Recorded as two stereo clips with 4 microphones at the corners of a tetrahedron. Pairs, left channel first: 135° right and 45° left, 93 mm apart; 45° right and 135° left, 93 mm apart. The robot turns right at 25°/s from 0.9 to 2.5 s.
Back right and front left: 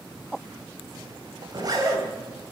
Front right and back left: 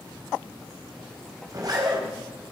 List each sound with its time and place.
1.5 s a zipper: 85° left, 3.5 m; by 2.0 s 100° left, 3.5 m